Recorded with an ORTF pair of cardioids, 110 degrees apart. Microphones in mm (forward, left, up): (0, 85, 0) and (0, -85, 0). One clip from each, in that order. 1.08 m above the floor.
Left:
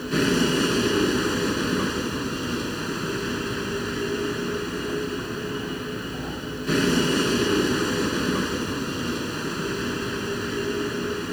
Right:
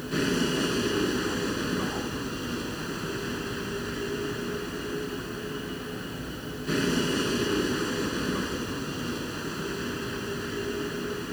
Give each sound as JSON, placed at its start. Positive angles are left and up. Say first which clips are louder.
{"t": 0.0, "sound": "a vehicle", "louder": "left 5 dB", "azimuth_deg": 35}